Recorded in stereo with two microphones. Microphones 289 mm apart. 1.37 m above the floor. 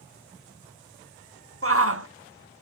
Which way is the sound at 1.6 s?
50° right (ahead or behind).